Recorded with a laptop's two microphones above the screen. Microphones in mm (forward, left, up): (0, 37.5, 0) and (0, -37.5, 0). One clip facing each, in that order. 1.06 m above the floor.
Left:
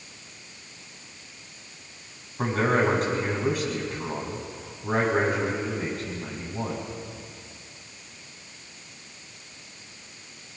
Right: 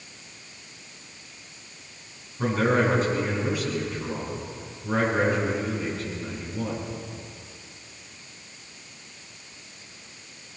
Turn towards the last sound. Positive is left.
turn(degrees=60)  # may be behind; listen again after turning